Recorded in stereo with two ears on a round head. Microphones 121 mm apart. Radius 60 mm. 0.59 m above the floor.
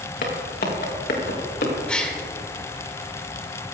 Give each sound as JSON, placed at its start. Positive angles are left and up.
{"t": 0.2, "sound": "footsteps", "side_deg": 65, "distance_m": 4.0}
{"t": 1.9, "sound": "a gasp", "side_deg": 10, "distance_m": 1.8}